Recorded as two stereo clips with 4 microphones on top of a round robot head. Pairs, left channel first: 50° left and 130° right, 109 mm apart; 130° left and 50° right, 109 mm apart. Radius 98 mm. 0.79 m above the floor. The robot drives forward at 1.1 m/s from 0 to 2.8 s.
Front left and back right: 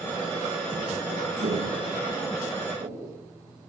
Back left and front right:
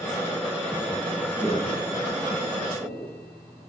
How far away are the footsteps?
About 2.5 m.